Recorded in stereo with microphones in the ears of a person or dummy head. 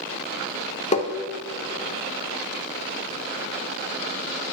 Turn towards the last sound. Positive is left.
turn(degrees=30)  # may be behind; listen again after turning